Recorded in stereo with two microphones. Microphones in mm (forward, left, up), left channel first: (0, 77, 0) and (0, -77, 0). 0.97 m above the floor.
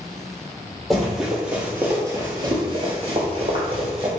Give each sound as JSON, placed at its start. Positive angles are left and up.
{"t": 0.9, "sound": "running footsteps", "side_deg": 0, "distance_m": 1.7}